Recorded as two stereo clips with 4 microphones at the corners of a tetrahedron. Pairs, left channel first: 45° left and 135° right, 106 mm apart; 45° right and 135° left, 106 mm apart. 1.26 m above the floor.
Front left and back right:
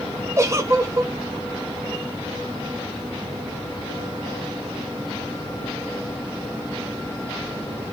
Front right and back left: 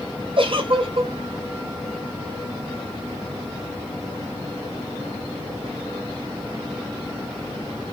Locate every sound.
0.4 s a giggle: 160° left, 1.0 m